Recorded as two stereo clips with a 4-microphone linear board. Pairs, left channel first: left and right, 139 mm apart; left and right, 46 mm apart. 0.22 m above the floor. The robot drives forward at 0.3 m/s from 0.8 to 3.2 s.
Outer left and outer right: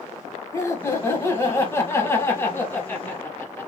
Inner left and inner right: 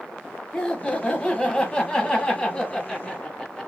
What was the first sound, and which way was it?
Laughter, 20° left (ahead or behind).